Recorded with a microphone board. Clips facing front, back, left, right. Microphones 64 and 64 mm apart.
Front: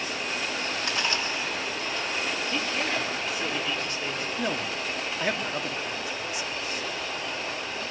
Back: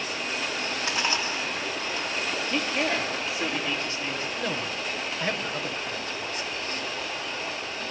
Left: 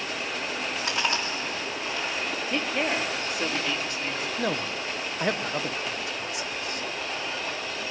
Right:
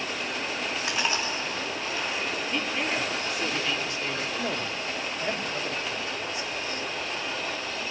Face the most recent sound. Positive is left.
turn(degrees=80)